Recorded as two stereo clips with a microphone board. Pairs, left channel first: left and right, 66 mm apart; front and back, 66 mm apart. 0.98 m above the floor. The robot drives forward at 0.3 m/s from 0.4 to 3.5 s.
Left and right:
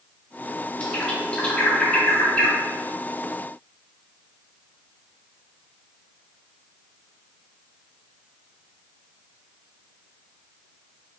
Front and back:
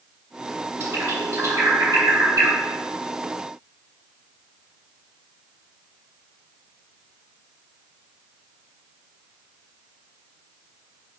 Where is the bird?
155° left, 0.6 m; by 2.6 s 170° left, 1.0 m.